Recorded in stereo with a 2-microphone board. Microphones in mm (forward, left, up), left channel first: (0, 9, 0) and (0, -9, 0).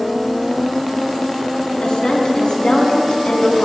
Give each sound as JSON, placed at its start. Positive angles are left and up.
{"t": 1.8, "sound": "a woman speaking", "side_deg": 60, "distance_m": 3.0}